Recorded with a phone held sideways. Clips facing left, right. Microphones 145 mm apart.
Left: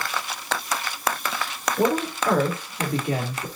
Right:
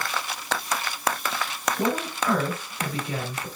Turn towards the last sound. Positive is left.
turn(degrees=70)  # may be behind; listen again after turning